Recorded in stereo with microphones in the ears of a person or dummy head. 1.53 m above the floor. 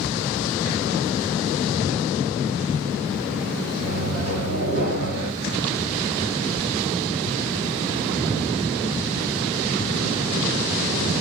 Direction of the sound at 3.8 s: 45° right (ahead or behind).